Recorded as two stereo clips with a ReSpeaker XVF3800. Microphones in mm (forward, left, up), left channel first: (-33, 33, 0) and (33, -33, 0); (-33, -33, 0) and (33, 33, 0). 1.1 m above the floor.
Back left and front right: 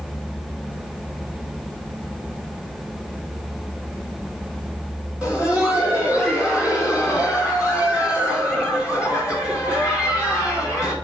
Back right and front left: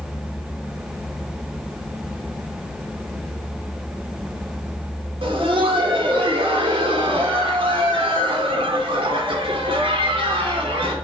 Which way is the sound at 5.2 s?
35° left.